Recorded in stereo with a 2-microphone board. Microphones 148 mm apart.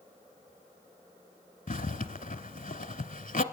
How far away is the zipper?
About 0.6 m.